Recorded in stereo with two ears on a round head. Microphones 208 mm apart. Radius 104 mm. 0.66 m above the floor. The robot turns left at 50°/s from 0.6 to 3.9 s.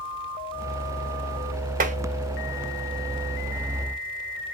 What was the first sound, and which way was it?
Tapping, 40° right (ahead or behind).